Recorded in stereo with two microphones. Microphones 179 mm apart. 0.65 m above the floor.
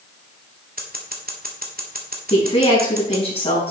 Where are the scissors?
55° right (ahead or behind), 1.6 m.